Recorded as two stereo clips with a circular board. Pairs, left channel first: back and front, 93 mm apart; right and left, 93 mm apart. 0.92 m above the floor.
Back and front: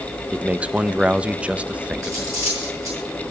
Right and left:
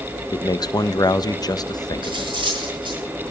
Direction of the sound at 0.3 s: 70° right.